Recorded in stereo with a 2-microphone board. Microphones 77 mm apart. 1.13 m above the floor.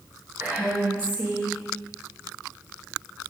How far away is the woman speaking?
About 1.6 m.